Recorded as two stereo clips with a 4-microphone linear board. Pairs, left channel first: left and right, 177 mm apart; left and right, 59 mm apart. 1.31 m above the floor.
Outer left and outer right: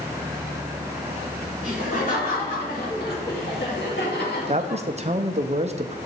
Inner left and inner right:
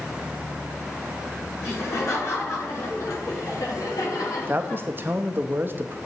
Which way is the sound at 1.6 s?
45° left (ahead or behind).